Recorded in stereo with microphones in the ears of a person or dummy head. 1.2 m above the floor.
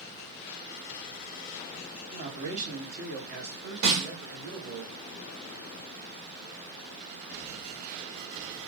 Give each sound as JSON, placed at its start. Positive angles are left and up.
{"t": 2.1, "sound": "a man speaking", "side_deg": -30, "distance_m": 0.8}
{"t": 3.8, "sound": "a snare drum", "side_deg": -70, "distance_m": 1.5}